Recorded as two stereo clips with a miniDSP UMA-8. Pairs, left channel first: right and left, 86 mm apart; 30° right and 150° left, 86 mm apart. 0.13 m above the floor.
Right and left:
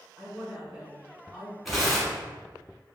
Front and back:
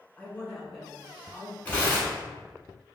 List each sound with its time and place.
0.2 s a woman speaking: 15° left, 1.1 m; by 1.6 s 130° left, 1.2 m
1.6 s tearing paper: 5° left, 1.0 m